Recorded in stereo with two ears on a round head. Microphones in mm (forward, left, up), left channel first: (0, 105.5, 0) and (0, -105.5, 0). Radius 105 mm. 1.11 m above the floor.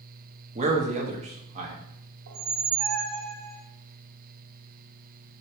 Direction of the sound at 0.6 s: 30° right (ahead or behind).